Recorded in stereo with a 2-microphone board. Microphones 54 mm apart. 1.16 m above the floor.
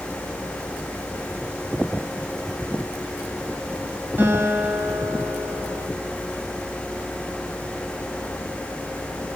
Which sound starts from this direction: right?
A guitar, at 4.2 s.